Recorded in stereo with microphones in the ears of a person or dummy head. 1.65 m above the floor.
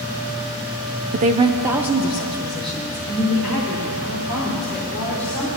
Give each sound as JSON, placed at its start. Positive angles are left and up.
{"t": 1.1, "sound": "a woman speaking", "side_deg": -50, "distance_m": 0.6}